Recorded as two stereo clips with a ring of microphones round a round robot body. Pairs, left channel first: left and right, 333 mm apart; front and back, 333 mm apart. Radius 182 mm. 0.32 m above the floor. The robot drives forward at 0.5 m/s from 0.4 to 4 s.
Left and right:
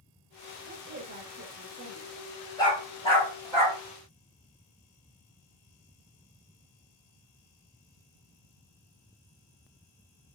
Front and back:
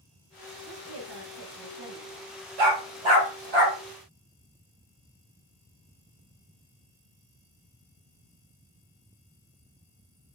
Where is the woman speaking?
140° right, 1.6 m; by 2.3 s 155° right, 2 m.